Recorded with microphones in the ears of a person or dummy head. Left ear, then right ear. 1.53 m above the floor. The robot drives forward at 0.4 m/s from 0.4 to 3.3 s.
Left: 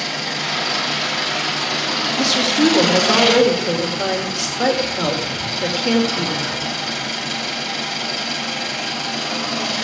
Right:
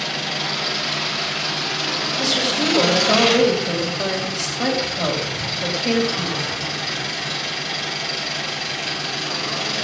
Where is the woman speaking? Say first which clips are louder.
Left 3 dB; 40° left (ahead or behind), 2.5 m; by 6.6 s 50° left (ahead or behind), 2.5 m.